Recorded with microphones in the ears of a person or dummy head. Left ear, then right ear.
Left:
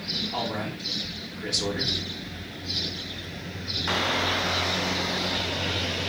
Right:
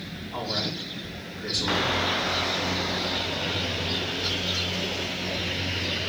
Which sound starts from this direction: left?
A man speaking, at 0.3 s.